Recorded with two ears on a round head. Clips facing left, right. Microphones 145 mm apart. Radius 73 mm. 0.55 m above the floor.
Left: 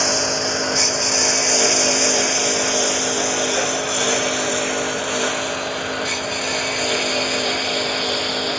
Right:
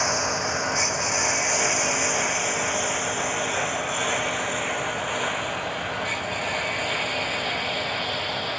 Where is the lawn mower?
40° left (ahead or behind); by 8.6 s 55° left (ahead or behind).